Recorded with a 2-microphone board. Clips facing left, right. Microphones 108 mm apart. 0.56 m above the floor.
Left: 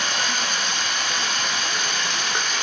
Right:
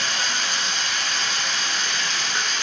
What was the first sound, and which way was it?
Running water, 60° left (ahead or behind).